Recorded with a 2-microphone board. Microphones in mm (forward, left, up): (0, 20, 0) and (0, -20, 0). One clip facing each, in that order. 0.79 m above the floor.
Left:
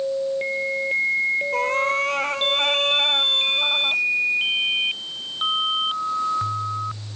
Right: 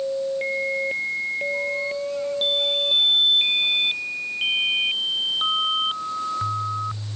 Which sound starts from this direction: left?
A cat meowing, at 1.5 s.